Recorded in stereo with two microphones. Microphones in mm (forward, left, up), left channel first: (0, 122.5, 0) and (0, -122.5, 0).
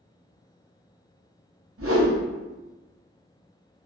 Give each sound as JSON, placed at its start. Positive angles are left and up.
{"t": 1.8, "sound": "a whoosh", "side_deg": -65, "distance_m": 0.6}